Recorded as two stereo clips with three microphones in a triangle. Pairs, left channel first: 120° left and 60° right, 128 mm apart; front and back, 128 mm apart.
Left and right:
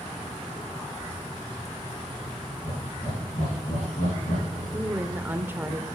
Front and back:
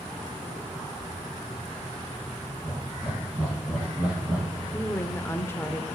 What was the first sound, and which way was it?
Laughter, 95° left.